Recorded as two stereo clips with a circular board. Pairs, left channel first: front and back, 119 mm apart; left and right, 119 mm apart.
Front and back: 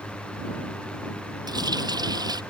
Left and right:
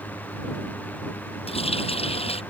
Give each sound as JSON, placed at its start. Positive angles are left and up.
{"t": 1.5, "sound": "a running tap", "azimuth_deg": 125}